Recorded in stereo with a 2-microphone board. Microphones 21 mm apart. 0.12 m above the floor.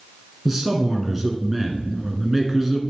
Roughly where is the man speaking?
Centre.